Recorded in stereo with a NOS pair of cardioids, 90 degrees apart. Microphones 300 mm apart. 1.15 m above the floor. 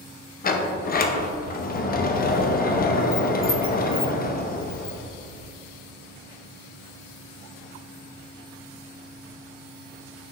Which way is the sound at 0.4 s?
30° left.